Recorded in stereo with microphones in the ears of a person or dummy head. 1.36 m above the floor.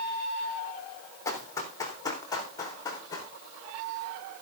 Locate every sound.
1.2 s running footsteps: 15° left (ahead or behind), 3.5 m; by 3.3 s 20° left (ahead or behind), 5 m